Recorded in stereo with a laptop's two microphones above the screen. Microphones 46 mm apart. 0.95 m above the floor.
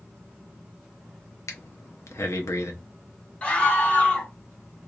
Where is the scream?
30° left (ahead or behind), 0.7 m.